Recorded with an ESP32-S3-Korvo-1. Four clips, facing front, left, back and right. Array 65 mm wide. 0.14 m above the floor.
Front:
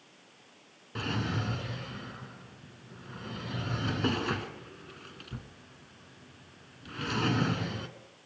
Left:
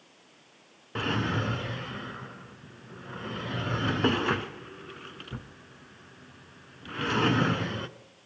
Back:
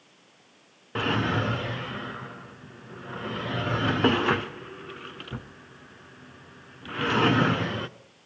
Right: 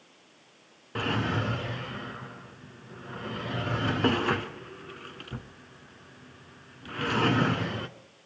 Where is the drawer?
175° left, 0.8 m.